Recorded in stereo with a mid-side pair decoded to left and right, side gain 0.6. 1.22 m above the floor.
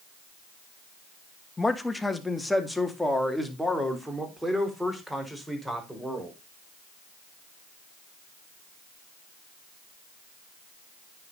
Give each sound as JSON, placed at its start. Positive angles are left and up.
{"t": 1.6, "sound": "a man speaking", "azimuth_deg": 15, "distance_m": 1.7}